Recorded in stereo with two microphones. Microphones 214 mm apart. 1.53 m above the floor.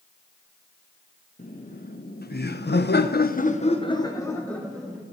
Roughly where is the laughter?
Left.